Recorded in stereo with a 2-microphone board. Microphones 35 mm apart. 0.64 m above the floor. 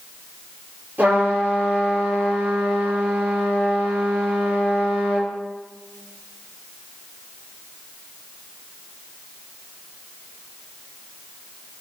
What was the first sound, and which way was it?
A trumpet, 50° right (ahead or behind).